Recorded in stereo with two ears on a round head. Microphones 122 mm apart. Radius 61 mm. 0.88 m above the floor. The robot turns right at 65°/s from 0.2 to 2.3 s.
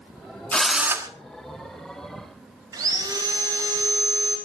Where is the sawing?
25° right (ahead or behind), 3.5 m.